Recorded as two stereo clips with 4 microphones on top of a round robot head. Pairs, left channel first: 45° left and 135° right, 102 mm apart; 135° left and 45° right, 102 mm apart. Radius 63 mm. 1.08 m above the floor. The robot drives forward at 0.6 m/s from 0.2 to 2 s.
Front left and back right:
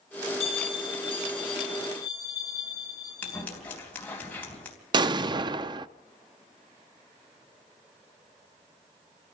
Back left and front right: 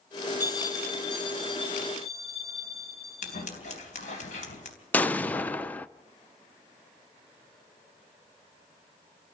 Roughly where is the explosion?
Behind right.